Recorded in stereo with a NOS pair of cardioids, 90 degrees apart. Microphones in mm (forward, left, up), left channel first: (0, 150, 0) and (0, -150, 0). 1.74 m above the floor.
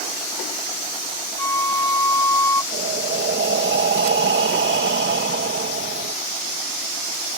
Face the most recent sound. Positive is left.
turn(degrees=-35)